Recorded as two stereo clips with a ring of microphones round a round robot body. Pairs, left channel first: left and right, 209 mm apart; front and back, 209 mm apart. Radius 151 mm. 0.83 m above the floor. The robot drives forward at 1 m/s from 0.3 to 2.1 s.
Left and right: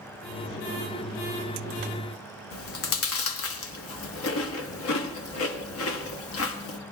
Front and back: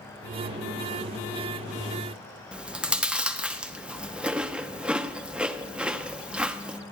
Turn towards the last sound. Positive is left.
turn(degrees=95)